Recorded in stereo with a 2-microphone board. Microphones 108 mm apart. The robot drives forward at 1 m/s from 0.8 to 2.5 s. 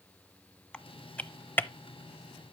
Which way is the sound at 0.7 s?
10° left (ahead or behind).